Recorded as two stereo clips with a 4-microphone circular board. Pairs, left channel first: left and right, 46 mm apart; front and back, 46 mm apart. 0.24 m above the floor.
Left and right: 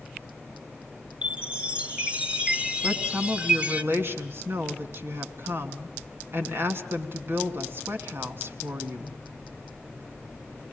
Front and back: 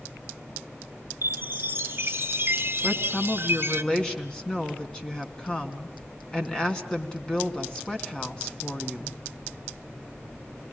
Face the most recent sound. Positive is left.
turn(degrees=-65)